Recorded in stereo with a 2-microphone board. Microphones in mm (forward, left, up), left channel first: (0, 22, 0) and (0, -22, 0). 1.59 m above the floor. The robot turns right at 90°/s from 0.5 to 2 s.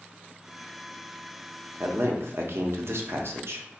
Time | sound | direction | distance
1.8 | a man speaking | 80° right | 0.6 m